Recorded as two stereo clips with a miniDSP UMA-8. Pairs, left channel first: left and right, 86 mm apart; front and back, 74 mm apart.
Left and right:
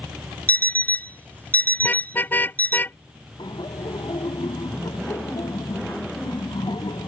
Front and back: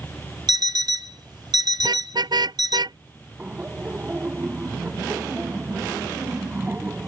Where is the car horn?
160° left.